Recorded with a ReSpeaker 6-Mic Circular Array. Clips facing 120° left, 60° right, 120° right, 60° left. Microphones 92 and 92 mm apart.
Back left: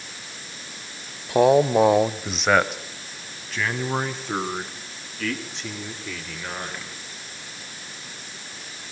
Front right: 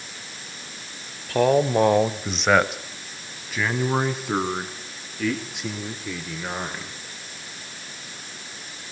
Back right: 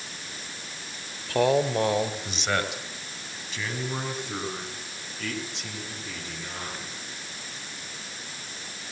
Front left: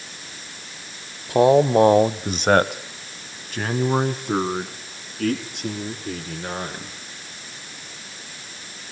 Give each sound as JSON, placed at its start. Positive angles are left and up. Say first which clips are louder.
{"t": 1.3, "sound": "a man speaking", "louder": "back left 2 dB, front left 8 dB", "azimuth_deg": 85, "distance_m": 0.8}